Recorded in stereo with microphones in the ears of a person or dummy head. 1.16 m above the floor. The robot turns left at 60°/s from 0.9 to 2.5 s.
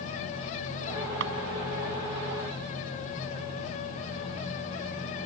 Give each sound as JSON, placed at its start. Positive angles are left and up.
{"t": 1.2, "sound": "a drawer", "side_deg": -70}